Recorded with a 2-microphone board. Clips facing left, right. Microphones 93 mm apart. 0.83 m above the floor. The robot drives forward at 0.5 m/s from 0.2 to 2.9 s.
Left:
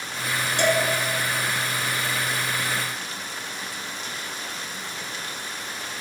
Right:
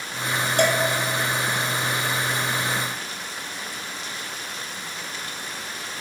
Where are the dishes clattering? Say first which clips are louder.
Right 1 dB; 50° right (ahead or behind), 1.1 m; by 0.8 s 45° right (ahead or behind), 1.1 m.